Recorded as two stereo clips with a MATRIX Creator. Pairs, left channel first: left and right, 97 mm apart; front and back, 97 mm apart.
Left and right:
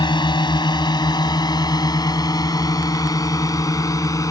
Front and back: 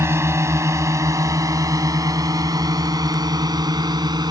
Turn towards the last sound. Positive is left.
turn(degrees=140)